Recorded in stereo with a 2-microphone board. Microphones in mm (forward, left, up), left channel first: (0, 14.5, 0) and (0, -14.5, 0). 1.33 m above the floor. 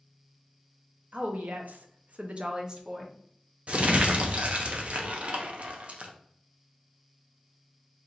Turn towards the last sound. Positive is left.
turn(degrees=-45)  # may be behind; listen again after turning